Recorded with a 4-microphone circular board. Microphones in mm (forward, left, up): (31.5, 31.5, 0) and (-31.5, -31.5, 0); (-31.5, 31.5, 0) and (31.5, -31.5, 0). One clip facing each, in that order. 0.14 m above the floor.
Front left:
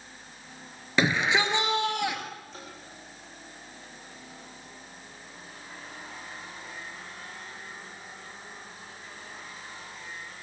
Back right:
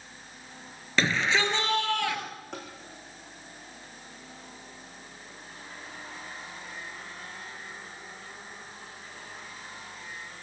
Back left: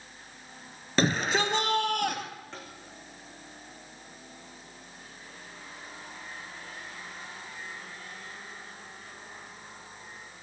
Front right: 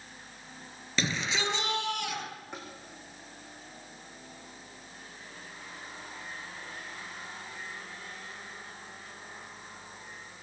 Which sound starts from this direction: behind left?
A shout, at 1.0 s.